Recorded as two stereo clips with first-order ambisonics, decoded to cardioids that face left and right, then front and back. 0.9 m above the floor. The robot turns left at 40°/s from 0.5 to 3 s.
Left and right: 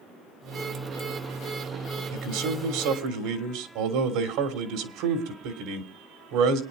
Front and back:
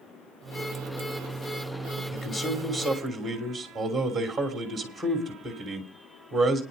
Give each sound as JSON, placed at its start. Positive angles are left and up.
{"t": 2.1, "sound": "a man speaking", "azimuth_deg": -60, "distance_m": 3.0}